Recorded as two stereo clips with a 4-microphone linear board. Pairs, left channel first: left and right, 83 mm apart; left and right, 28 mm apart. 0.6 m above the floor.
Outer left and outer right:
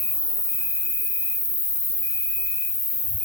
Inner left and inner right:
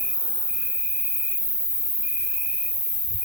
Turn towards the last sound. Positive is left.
turn(degrees=30)  # may be behind; listen again after turning